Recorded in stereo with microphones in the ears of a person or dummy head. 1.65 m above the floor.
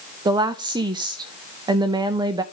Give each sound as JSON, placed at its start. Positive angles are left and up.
{"t": 0.2, "sound": "a woman speaking", "side_deg": -20, "distance_m": 0.6}